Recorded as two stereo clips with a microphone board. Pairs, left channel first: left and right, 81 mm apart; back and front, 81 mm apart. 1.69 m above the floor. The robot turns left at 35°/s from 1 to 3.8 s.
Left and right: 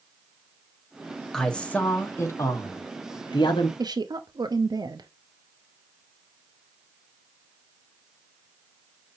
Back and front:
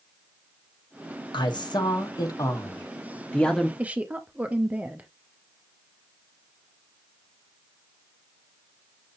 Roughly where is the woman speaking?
Right.